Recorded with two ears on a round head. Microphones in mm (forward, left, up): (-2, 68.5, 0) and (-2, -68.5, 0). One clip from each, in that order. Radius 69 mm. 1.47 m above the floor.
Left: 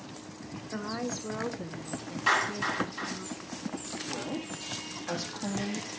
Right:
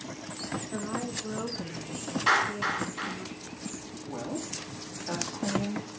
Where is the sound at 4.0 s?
80° left, 3.5 m.